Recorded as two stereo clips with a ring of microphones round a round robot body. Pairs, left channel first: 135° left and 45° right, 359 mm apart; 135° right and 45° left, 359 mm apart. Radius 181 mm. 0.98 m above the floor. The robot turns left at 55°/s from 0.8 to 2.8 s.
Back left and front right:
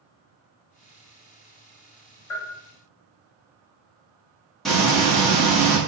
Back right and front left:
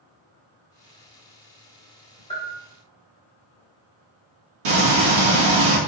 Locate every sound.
2.3 s a bell: 150° left, 1.6 m; by 2.5 s 135° left, 1.6 m
4.7 s frying: 45° left, 1.5 m